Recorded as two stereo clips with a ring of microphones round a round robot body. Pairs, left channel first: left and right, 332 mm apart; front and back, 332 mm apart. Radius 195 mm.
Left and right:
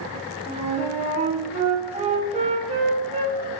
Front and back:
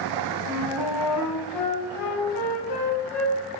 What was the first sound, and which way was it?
A flute, 20° right.